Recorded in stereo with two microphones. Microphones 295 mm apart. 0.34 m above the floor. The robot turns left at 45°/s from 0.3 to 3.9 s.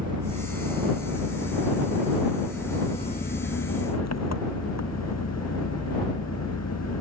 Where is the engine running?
80° right; by 7.0 s 120° left.